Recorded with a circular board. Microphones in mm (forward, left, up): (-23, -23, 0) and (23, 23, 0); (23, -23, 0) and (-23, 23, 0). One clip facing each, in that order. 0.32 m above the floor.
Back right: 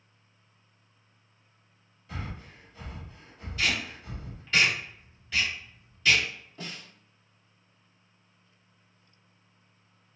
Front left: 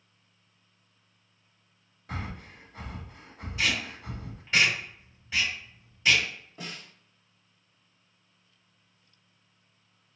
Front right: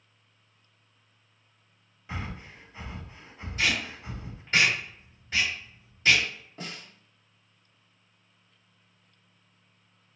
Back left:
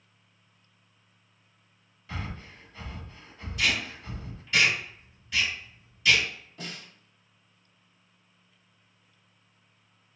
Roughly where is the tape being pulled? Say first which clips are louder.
Even, even; ahead.